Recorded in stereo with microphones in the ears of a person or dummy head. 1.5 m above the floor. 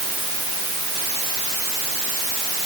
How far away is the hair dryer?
No hair dryer in this recording.